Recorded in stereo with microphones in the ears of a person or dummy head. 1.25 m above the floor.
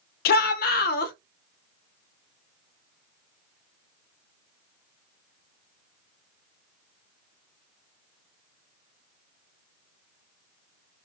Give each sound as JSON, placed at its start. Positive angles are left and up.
{"t": 0.2, "sound": "a shout", "side_deg": 65, "distance_m": 0.5}